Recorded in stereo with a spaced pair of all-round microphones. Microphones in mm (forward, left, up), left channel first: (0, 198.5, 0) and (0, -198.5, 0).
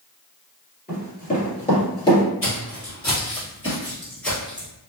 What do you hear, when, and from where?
0.9 s running footsteps: 25° left (ahead or behind), 1.9 m; by 2.2 s 10° left (ahead or behind), 1.8 m
2.4 s footsteps: 35° left (ahead or behind), 2.0 m; by 4.7 s 5° right (ahead or behind), 1.8 m